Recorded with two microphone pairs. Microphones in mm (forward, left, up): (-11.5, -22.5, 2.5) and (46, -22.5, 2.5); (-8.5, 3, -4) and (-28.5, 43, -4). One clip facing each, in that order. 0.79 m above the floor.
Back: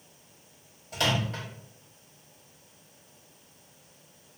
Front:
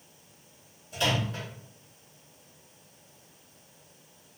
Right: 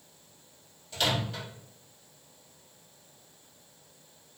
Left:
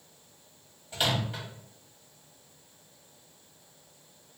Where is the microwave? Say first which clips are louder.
Back 1 dB, even; 175° right, 1.0 m.